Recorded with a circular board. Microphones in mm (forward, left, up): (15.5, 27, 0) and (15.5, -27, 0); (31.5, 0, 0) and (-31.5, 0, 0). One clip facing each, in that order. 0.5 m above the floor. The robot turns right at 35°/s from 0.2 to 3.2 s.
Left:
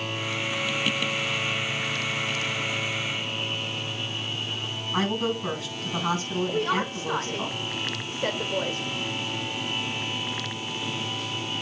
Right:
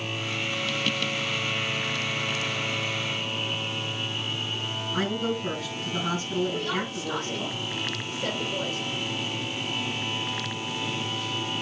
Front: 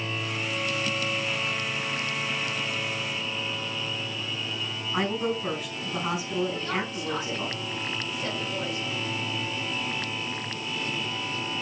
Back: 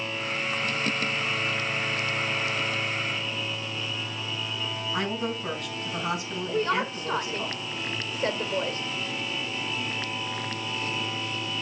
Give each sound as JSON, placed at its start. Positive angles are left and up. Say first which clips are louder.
{"t": 4.9, "sound": "a woman speaking", "louder": "left 2 dB, front 4 dB", "azimuth_deg": 85, "distance_m": 5.0}
{"t": 6.5, "sound": "a woman speaking", "louder": "left 3 dB, back 4 dB", "azimuth_deg": 135, "distance_m": 1.7}